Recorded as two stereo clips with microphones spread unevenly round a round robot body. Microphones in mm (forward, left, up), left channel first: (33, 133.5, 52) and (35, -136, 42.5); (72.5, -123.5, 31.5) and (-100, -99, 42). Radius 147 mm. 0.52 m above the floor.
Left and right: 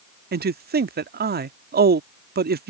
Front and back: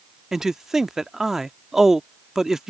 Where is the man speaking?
100° right.